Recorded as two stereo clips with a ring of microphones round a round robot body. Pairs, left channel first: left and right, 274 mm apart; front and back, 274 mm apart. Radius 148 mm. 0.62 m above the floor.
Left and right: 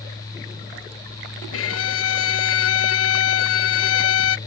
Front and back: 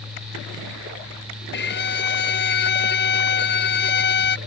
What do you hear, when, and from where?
1.5 s a violin: 50° left